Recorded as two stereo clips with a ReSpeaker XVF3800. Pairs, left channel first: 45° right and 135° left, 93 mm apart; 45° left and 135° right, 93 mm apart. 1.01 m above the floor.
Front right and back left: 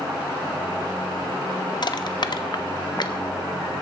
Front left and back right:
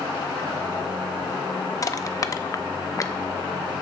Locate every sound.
1.8 s crushing: 10° right, 0.5 m